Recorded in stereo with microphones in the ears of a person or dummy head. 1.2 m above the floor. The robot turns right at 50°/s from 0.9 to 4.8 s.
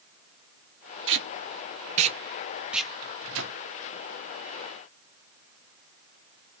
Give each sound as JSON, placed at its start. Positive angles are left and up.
{"t": 1.1, "sound": "tape being pulled", "side_deg": -60, "distance_m": 0.7}
{"t": 3.0, "sound": "a microwave", "side_deg": -70, "distance_m": 0.8}